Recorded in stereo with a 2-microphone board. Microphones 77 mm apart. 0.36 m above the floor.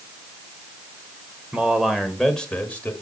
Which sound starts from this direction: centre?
A man speaking, at 1.5 s.